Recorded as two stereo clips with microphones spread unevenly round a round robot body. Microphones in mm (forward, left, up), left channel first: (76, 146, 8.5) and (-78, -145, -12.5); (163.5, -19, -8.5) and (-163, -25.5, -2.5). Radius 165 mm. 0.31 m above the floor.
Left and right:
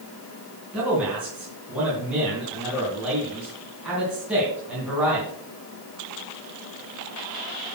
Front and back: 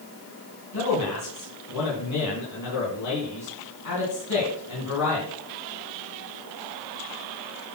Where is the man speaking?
35° right, 3.5 m.